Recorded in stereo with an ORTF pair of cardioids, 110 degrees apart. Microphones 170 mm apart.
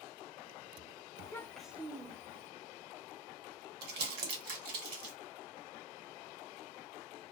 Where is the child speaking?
30° left, 0.6 m; by 2.5 s 35° right, 1.0 m.